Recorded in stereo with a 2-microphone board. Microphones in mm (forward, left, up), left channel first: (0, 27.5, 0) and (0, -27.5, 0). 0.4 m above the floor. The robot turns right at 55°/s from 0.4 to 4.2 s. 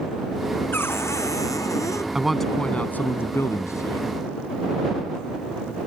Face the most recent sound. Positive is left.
turn(degrees=105)